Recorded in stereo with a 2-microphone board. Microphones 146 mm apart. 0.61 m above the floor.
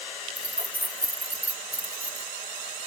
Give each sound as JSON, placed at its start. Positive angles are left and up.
{"t": 0.4, "sound": "keys jangling", "side_deg": -15, "distance_m": 0.6}